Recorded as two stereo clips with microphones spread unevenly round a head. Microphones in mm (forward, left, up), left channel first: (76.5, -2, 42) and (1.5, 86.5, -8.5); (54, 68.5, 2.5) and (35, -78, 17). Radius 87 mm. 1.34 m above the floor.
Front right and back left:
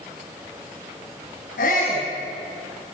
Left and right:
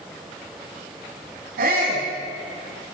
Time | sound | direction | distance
1.6 | a shout | 80° right | 10 m